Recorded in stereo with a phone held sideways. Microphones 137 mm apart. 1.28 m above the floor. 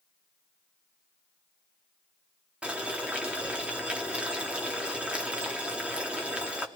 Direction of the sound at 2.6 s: 10° right (ahead or behind).